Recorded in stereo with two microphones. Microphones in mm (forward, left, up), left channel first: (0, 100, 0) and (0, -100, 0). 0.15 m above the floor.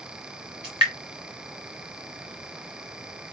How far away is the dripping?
About 3 m.